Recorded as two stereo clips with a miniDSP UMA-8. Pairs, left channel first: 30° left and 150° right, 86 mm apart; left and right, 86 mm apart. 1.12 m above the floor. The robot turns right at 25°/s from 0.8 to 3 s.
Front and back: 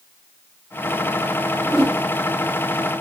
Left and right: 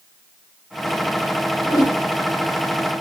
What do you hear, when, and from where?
1.6 s a whoosh: 130° left, 2.5 m; by 2.0 s 135° left, 2.5 m